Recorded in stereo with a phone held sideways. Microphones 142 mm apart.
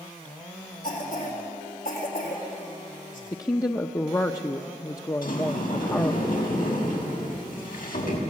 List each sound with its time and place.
0.8 s a cough: 75° left (ahead or behind), 4 m
3.3 s a woman speaking: 20° left (ahead or behind), 0.6 m
5.2 s a sliding door: 80° left, 5 m